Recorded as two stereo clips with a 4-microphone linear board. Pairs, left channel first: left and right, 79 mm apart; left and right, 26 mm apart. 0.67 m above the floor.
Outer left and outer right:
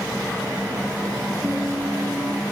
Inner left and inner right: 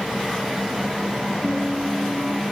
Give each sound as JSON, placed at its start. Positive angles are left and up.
{"t": 1.4, "sound": "a guitar", "side_deg": -35}